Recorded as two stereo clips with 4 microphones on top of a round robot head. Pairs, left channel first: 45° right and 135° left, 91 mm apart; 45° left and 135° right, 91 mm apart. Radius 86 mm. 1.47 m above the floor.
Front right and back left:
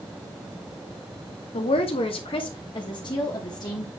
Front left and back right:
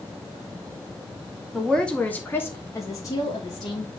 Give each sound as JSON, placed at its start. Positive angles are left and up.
{"t": 1.5, "sound": "a woman speaking", "azimuth_deg": -40, "distance_m": 1.3}